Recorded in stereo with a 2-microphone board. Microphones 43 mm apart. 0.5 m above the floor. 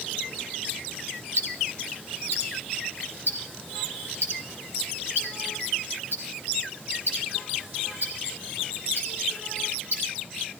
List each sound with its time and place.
1.4 s ticking: 65° right (ahead or behind), 5 m